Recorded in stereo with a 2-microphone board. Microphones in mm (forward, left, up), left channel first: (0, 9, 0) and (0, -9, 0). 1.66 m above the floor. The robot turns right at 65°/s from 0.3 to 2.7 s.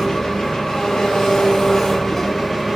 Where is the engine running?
40° left, 0.9 m; by 2.8 s 165° right, 0.9 m.